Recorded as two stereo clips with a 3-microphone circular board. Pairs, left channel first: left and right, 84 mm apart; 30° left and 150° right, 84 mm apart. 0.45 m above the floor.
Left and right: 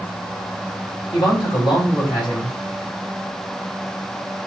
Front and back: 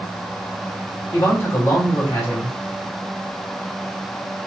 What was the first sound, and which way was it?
A man speaking, 85° left.